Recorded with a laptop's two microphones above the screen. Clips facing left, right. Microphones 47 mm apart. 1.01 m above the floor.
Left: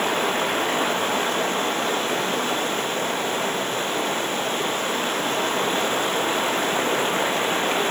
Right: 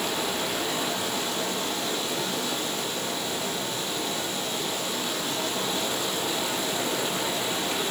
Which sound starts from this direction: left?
Running water, at 0.0 s.